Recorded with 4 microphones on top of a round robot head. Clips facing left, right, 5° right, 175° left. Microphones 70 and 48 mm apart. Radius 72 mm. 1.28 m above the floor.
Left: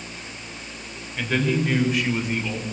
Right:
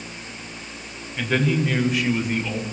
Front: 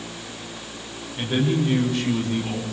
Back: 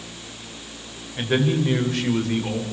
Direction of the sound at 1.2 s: Straight behind.